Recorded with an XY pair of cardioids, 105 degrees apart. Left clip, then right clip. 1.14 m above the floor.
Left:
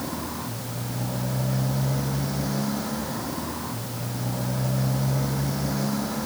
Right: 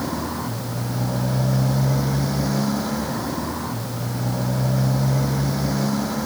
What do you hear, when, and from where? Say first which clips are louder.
0.0 s a motorcycle: right 5 dB; 40° right; by 6.3 s 30° right